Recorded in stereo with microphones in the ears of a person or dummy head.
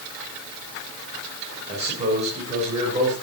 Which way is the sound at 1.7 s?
40° right (ahead or behind).